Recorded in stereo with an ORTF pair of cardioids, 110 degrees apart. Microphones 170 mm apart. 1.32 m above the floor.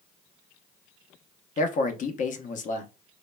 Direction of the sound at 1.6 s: 50° left.